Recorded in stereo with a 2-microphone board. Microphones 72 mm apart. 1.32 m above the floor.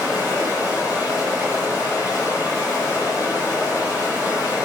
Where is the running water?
60° left (ahead or behind), 1.5 m.